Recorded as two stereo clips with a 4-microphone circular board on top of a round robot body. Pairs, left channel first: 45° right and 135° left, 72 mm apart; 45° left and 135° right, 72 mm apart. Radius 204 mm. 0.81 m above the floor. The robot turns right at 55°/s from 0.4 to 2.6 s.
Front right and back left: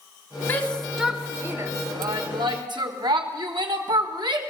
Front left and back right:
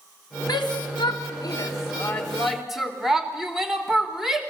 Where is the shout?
20° left, 3.5 m; by 4.4 s 140° left, 3.5 m.